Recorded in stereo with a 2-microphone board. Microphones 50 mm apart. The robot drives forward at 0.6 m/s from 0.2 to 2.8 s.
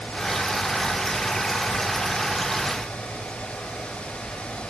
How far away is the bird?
I don't hear a bird.